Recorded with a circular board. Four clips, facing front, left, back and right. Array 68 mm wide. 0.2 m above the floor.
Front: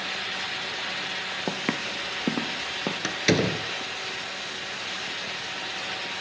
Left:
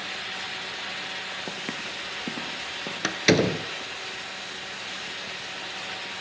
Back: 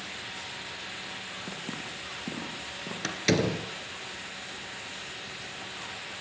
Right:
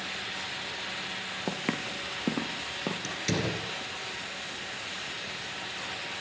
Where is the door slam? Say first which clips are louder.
Left 13 dB, front 2 dB; 75° left, 2 m.